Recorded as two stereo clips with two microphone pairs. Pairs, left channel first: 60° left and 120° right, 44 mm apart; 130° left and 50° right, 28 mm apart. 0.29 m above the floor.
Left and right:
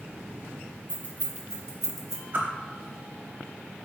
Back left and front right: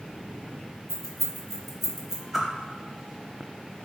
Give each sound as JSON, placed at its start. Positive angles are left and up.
{"t": 0.9, "sound": "keys jangling", "azimuth_deg": 55, "distance_m": 1.3}
{"t": 2.3, "sound": "a whoosh", "azimuth_deg": -130, "distance_m": 0.8}